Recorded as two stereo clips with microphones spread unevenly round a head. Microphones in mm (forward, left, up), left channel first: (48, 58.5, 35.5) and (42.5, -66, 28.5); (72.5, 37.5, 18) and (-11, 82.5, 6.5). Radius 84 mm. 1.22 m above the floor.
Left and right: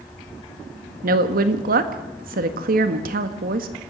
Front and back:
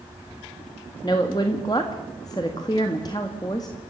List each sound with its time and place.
1.0 s a woman speaking: 100° right, 1.6 m